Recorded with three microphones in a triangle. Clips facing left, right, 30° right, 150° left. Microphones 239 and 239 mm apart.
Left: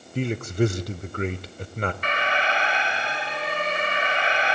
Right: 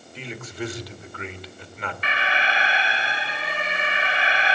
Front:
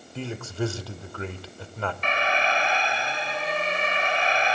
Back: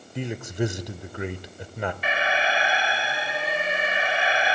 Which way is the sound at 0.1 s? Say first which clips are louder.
Left 10 dB, back 2 dB; 85° left.